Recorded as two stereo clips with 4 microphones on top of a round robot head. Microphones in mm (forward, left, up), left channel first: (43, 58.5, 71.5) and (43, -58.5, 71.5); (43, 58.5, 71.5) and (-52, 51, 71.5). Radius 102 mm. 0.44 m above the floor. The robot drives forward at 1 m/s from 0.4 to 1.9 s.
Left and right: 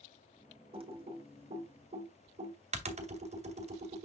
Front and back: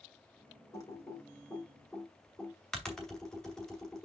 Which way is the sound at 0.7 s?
55° right.